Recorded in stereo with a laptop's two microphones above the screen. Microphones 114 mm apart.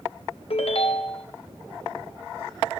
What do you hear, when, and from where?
0.5 s a ringtone: 60° left (ahead or behind), 1.1 m